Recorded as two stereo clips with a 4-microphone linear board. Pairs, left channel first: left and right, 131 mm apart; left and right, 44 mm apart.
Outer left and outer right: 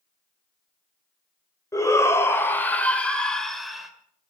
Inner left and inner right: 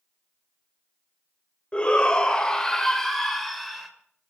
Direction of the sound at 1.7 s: 25° left (ahead or behind).